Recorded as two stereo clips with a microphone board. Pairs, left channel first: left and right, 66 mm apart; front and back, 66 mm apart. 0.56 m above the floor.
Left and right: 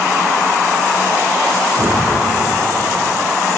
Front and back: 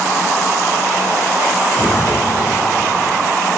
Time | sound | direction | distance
1.8 | an explosion | 105° right | 6.5 m